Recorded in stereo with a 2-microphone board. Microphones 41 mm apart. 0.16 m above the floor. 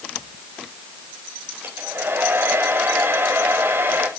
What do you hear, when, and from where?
1.6 s a hair dryer: 85° right, 4.5 m